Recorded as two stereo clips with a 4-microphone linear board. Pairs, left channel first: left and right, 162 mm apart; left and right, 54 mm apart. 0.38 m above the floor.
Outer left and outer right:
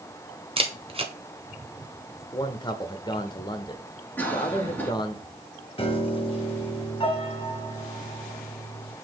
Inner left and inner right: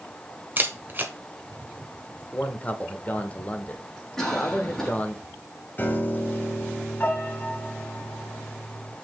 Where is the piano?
35° left (ahead or behind), 1.3 m.